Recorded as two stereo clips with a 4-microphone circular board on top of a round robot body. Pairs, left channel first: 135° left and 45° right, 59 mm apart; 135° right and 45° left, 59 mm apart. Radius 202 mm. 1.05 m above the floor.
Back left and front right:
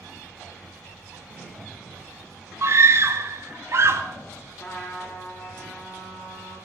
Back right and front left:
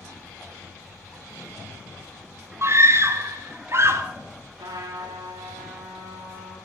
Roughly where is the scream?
Ahead.